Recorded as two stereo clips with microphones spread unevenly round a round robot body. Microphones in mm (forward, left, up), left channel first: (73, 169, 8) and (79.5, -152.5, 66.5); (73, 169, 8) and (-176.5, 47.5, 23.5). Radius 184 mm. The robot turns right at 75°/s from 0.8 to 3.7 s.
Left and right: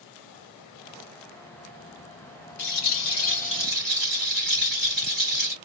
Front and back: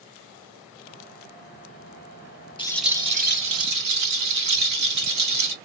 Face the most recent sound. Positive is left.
turn(degrees=-175)